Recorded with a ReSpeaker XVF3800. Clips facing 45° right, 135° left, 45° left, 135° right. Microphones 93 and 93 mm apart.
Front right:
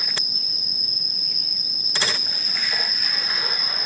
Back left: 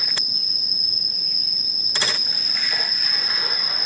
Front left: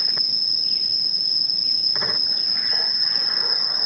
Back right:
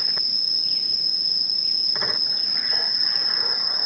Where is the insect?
85° left, 1.8 m.